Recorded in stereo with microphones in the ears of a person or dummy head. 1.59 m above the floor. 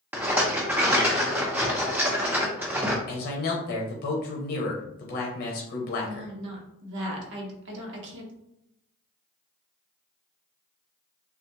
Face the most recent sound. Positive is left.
turn(degrees=-75)  # may be behind; listen again after turning